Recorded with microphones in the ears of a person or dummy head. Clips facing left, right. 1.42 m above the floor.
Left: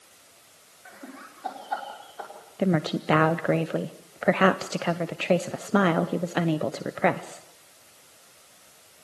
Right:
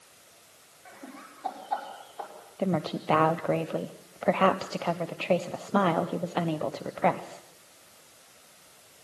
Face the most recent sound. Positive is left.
turn(degrees=20)  # may be behind; listen again after turning